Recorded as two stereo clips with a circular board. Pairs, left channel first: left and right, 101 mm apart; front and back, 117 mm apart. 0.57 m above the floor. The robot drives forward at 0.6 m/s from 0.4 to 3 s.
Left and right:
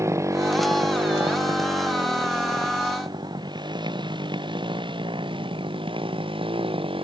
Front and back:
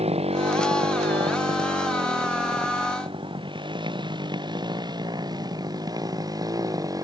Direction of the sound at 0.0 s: 150° right.